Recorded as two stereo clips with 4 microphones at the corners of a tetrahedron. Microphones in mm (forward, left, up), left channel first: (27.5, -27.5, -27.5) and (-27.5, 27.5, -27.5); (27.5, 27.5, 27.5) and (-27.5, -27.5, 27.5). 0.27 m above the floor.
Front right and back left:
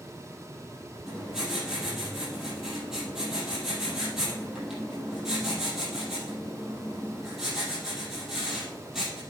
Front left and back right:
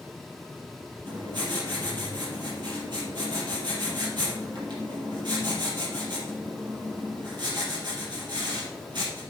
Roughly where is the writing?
Behind right.